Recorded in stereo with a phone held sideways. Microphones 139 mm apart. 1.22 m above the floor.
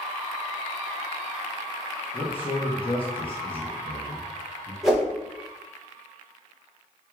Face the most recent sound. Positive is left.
turn(degrees=0)  # may be behind; listen again after turning